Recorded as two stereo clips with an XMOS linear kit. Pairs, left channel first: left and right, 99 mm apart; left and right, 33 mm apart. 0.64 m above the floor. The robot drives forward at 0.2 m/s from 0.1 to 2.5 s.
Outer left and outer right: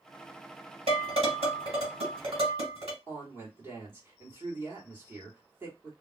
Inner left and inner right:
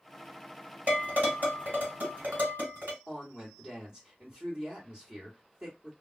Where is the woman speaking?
25° right (ahead or behind), 1.7 m.